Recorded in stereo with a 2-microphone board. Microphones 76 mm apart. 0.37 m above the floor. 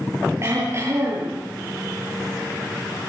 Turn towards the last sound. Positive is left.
turn(degrees=-40)  # may be behind; listen again after turning